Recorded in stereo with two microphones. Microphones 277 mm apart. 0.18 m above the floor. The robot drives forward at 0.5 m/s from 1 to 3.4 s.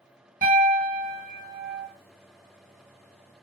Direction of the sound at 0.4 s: 30° right (ahead or behind).